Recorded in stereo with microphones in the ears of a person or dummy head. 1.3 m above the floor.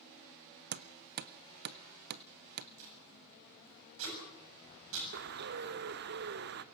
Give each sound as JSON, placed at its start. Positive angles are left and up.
{"t": 0.7, "sound": "hammering", "side_deg": -50, "distance_m": 0.7}
{"t": 2.8, "sound": "tape being pulled", "side_deg": -80, "distance_m": 7.0}
{"t": 5.1, "sound": "a bird", "side_deg": -55, "distance_m": 0.9}